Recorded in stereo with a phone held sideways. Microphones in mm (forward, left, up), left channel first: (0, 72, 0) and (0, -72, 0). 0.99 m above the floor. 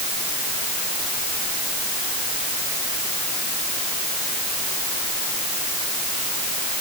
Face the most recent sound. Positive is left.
No sound to turn to.